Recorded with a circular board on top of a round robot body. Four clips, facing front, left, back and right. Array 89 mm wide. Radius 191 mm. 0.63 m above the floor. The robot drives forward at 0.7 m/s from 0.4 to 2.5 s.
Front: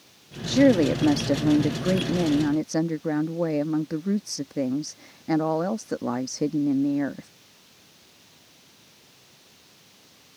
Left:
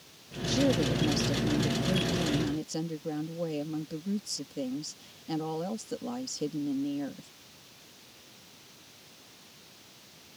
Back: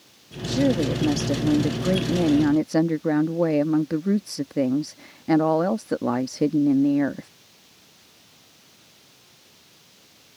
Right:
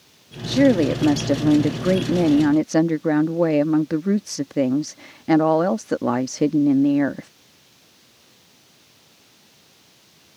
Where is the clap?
No clap in this recording.